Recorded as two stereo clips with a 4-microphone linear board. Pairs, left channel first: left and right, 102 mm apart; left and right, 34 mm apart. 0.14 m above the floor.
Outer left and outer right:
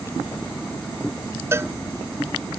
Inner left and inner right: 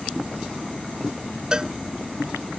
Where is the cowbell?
25° right (ahead or behind).